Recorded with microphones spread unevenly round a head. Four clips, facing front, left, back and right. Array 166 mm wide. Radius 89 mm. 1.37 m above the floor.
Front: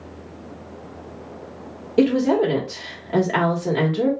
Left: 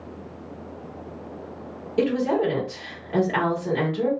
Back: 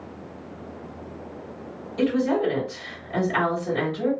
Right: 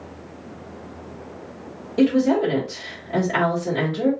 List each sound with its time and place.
2.0 s a woman speaking: straight ahead, 1.5 m